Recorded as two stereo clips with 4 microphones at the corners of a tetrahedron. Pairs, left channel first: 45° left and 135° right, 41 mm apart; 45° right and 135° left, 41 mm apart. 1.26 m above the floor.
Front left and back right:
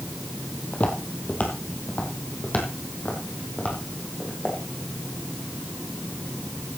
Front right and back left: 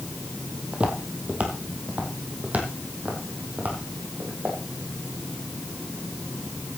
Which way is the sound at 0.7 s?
80° left.